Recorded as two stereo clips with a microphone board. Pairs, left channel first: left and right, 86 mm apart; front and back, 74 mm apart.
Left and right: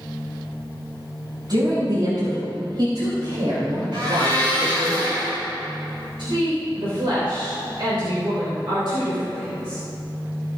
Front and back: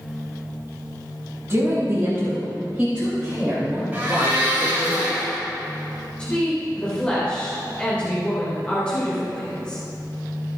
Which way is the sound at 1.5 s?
125° right.